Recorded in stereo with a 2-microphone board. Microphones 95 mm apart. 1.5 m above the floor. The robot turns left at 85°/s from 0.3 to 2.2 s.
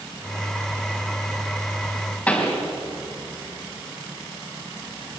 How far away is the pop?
About 3.5 m.